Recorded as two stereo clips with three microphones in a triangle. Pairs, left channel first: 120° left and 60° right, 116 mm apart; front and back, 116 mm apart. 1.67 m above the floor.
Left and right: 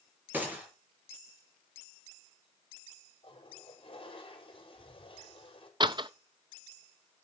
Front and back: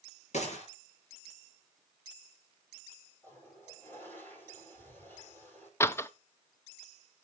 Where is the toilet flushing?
70° left, 5 m.